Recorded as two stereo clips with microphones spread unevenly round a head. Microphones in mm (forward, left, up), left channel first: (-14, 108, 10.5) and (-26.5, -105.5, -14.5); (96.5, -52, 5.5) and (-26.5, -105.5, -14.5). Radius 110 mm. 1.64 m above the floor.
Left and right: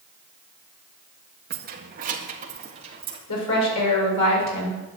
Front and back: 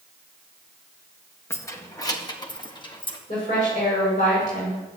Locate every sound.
1.5 s keys jangling: 45° right, 1.7 m; by 3.2 s 25° right, 2.5 m
3.3 s a woman speaking: 85° left, 7 m